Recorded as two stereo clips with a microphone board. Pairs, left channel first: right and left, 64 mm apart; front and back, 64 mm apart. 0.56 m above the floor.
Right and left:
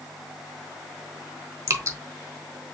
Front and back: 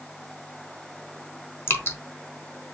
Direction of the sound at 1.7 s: 50° left.